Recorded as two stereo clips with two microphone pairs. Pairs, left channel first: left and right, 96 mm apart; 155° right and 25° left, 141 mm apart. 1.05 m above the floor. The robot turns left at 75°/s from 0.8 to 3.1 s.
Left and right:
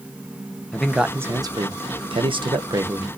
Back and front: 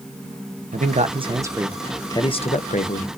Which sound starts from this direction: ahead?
A man speaking, at 0.7 s.